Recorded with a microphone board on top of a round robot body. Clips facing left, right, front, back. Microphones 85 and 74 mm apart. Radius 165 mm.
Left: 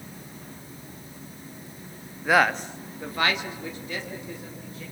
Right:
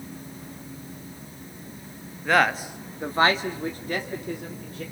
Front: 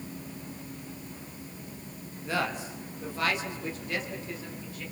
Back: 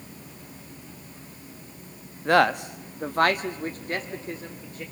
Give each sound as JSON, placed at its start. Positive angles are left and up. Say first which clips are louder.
{"t": 2.2, "sound": "a man speaking", "louder": "even, back 11 dB", "azimuth_deg": 170, "distance_m": 1.3}